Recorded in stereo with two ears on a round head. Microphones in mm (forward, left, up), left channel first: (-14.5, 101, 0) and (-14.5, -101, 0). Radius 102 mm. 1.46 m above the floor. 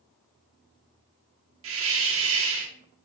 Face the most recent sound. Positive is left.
turn(degrees=-60)  # may be behind; listen again after turning